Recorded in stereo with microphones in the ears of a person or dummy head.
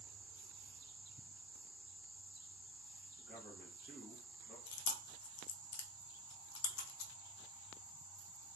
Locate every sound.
3.2 s a man speaking: 25° left (ahead or behind), 1.5 m
4.7 s chewing: 75° left (ahead or behind), 0.7 m